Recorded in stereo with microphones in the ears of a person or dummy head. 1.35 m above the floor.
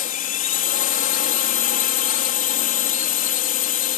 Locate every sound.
0.0 s a drone: 45° left (ahead or behind)